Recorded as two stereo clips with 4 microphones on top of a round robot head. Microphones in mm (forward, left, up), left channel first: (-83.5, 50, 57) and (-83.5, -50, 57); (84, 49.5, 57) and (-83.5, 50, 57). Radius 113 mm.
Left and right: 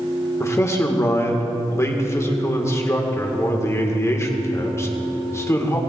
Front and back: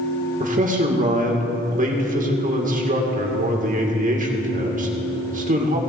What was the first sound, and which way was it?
A man speaking, 150° left.